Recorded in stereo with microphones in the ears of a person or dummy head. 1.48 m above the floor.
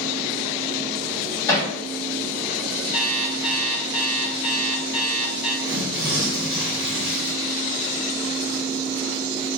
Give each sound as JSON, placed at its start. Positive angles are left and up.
{"t": 1.5, "sound": "hammering", "side_deg": 15, "distance_m": 2.5}
{"t": 2.9, "sound": "an alarm clock", "side_deg": 30, "distance_m": 1.9}
{"t": 5.6, "sound": "tearing paper", "side_deg": -10, "distance_m": 2.5}